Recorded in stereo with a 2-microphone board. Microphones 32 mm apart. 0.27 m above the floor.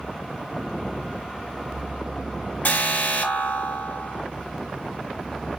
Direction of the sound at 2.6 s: 60° left (ahead or behind).